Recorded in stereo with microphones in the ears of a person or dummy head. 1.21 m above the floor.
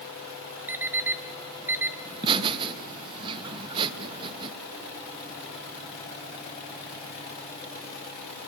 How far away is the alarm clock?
About 1.0 m.